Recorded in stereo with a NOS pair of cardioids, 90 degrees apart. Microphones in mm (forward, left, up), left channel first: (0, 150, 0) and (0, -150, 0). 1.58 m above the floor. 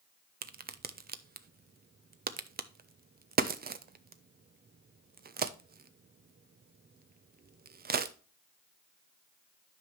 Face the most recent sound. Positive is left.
turn(degrees=-35)